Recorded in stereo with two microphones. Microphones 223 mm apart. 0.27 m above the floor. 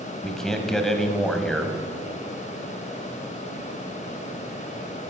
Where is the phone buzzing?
No phone buzzing in this recording.